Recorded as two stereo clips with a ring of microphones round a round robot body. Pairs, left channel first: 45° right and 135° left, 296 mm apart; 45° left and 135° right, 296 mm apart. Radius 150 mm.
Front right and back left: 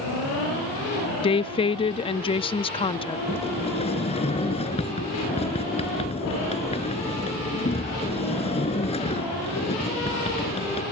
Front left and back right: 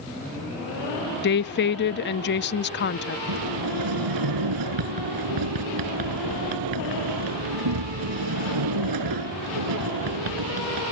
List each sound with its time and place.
1.2 s a woman speaking: 15° left
3.3 s a sliding door: 115° right